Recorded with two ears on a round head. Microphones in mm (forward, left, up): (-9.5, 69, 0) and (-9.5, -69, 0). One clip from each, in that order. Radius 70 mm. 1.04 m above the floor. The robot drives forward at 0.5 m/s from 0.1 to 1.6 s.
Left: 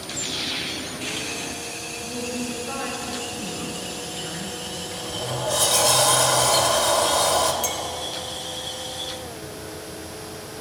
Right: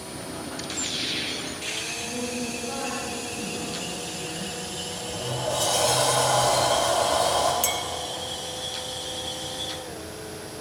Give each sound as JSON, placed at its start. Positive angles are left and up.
{"t": 2.0, "sound": "a woman speaking", "side_deg": 60, "distance_m": 6.0}
{"t": 4.9, "sound": "a sliding door", "side_deg": 30, "distance_m": 2.5}
{"t": 7.6, "sound": "a clink", "side_deg": -15, "distance_m": 1.0}